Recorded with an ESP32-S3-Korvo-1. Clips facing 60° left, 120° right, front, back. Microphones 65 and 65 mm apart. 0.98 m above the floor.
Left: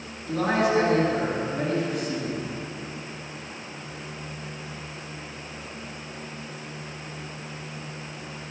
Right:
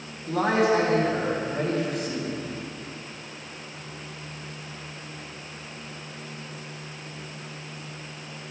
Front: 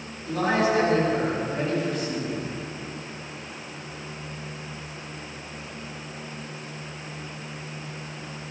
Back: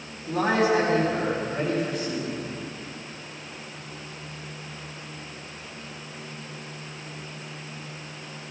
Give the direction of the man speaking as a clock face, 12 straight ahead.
4 o'clock.